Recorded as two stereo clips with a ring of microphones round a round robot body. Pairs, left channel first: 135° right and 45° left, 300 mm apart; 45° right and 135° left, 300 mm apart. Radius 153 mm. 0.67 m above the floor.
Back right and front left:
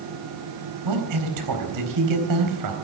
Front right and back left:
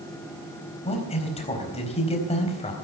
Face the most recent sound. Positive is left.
turn(degrees=25)